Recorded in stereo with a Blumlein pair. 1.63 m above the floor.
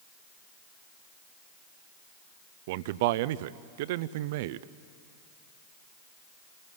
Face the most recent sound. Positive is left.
turn(degrees=-50)